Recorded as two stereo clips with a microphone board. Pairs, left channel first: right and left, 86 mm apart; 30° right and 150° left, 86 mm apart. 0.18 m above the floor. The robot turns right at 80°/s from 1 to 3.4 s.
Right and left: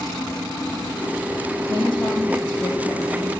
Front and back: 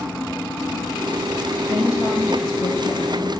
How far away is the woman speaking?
About 4.5 m.